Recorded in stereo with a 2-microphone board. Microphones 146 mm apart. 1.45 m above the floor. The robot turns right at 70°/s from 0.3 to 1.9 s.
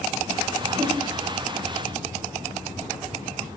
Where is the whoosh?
15° right (ahead or behind), 9 m; by 1.0 s 30° right (ahead or behind), 9 m.